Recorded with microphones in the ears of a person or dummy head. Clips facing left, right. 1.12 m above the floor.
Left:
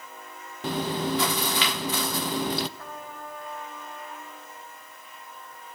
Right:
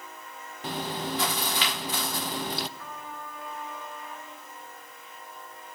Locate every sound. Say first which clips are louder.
0.6 s chewing: left 5 dB; 65° left (ahead or behind), 0.5 m
2.8 s a trumpet: left 1 dB; 35° left (ahead or behind), 2.5 m